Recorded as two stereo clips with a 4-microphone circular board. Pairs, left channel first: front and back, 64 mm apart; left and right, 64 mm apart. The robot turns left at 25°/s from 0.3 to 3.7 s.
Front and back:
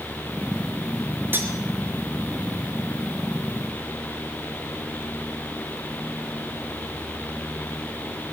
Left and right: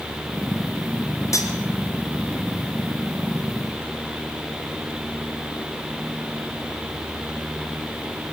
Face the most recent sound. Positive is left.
turn(degrees=65)